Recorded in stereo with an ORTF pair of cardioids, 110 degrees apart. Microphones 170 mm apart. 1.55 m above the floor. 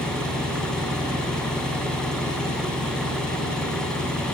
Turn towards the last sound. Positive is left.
turn(degrees=5)